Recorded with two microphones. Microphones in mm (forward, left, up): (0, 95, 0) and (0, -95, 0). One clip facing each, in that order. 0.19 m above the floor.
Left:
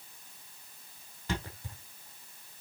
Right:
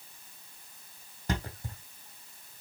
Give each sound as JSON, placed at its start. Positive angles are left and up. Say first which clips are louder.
{"t": 1.3, "sound": "a thud", "louder": "right 2 dB", "side_deg": -45, "distance_m": 3.0}